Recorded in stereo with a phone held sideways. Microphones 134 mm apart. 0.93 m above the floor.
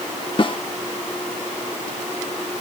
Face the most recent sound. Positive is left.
turn(degrees=40)  # may be behind; listen again after turning